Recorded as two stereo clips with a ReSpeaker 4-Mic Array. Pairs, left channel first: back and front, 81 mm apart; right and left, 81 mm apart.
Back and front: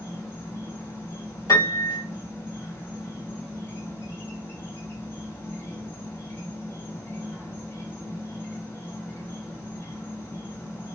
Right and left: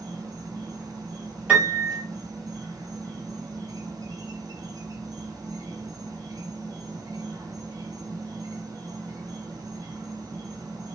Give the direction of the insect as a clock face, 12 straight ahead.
8 o'clock.